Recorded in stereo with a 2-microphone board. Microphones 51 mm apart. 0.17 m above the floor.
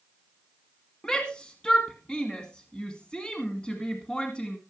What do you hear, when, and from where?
1.0 s a shout: 20° left (ahead or behind), 1.7 m